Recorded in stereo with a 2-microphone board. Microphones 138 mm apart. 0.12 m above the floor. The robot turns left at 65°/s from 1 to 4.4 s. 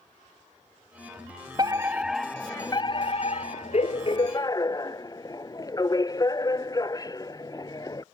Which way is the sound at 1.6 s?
140° right.